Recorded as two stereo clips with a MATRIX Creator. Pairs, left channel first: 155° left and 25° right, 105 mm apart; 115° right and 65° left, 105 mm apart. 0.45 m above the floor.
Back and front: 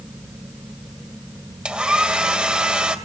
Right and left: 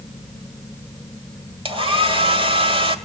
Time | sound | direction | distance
1.6 | a hair dryer | 55° left | 1.9 m